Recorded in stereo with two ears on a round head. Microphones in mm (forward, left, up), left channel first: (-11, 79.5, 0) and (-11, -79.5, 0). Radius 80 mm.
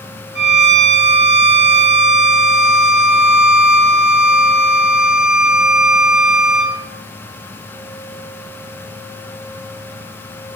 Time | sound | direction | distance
0.3 | a violin | 75° right (ahead or behind) | 4 m